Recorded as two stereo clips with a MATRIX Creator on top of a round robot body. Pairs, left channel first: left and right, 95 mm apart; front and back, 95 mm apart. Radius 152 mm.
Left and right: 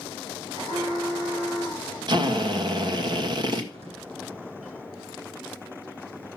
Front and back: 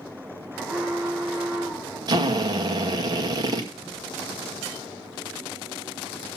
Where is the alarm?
105° right, 6 m.